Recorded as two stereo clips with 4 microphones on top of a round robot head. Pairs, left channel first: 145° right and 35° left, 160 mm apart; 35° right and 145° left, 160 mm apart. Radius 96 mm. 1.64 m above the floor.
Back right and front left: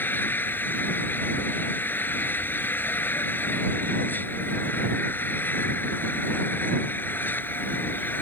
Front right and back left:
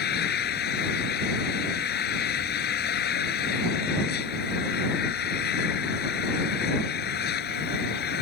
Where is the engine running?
65° right.